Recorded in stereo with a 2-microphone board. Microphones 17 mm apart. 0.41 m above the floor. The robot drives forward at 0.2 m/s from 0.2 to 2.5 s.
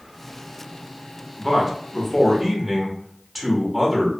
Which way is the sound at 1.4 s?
Centre (ahead or behind).